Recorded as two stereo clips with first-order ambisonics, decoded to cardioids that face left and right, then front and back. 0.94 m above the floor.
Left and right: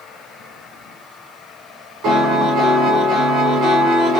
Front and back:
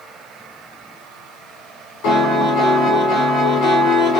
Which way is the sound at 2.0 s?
45° right.